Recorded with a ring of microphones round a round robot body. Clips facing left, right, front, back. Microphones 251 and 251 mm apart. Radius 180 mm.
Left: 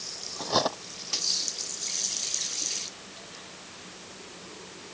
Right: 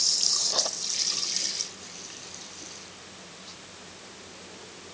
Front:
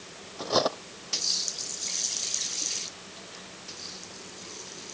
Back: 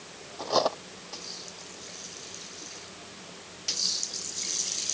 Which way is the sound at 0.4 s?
70° left.